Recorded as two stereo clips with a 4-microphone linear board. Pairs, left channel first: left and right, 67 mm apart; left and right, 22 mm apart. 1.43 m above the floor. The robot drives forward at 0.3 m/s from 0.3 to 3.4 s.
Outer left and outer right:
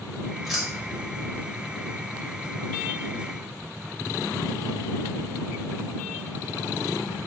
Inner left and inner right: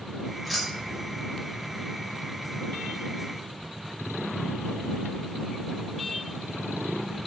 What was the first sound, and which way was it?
Keys jangling, 5° right (ahead or behind).